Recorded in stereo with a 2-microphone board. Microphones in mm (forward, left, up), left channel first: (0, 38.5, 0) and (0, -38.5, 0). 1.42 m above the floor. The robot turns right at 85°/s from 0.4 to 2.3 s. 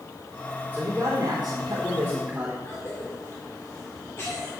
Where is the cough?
40° left (ahead or behind), 1.8 m.